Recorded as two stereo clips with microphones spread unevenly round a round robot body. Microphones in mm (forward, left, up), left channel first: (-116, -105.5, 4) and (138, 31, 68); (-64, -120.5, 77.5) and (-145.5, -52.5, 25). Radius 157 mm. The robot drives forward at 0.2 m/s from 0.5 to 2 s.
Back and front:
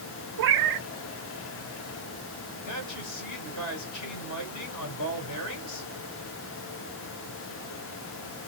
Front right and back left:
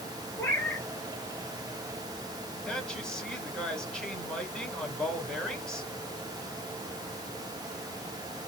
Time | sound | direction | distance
0.4 | a cat meowing | 15° left | 0.5 m
2.7 | a woman speaking | 130° right | 2.5 m